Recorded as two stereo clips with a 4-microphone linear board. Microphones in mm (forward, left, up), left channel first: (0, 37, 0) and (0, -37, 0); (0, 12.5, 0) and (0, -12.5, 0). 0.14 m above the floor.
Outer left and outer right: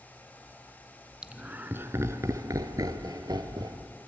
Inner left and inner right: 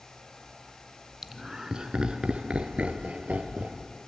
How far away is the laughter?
About 1.4 m.